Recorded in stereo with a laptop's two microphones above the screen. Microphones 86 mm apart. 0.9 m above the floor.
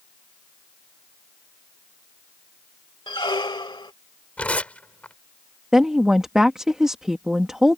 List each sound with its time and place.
3.1 s a squeak: 65° left (ahead or behind)
4.4 s tearing paper: 15° left (ahead or behind)
5.7 s a woman speaking: 10° right (ahead or behind)